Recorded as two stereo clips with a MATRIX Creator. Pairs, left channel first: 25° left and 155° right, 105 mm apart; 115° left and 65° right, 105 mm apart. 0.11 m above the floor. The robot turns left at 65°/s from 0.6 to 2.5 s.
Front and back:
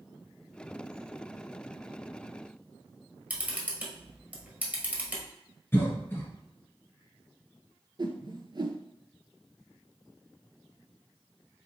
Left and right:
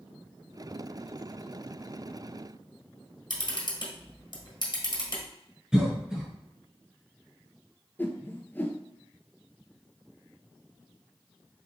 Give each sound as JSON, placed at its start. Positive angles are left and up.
{"t": 3.3, "sound": "a camera shutter", "azimuth_deg": 130, "distance_m": 1.5}
{"t": 5.7, "sound": "a cough", "azimuth_deg": 5, "distance_m": 1.3}
{"t": 8.0, "sound": "a whoosh", "azimuth_deg": 175, "distance_m": 0.5}